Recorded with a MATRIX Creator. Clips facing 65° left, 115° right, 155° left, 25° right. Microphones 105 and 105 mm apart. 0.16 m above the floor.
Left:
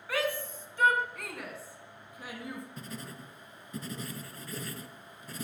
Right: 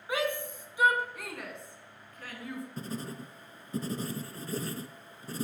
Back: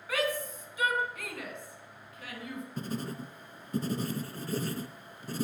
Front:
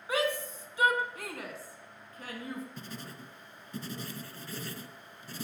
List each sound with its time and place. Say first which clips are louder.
0.1 s a shout: right 1 dB, front 1 dB; 65° right, 1.9 m; by 2.6 s 5° left, 2 m
2.8 s writing: right 5 dB, back 8 dB; 165° right, 0.6 m